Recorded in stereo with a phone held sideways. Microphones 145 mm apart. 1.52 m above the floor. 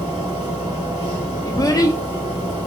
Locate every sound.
0.0 s a machine running: 30° right (ahead or behind), 1.7 m
1.4 s a child speaking: 25° left (ahead or behind), 0.6 m